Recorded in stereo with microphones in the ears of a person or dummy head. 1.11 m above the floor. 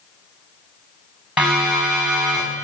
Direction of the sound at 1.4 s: 10° right (ahead or behind).